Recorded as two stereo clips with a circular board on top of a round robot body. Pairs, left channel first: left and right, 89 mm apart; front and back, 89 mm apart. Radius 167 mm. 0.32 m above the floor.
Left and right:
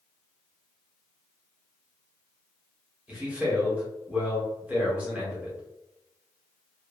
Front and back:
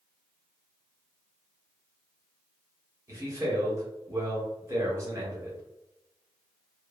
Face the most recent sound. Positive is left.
turn(degrees=-155)